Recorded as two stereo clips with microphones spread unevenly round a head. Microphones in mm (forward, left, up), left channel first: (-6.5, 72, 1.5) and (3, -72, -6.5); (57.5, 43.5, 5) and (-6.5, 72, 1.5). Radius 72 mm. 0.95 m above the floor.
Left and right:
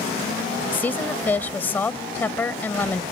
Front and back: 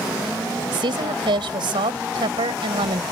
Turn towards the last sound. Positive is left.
turn(degrees=170)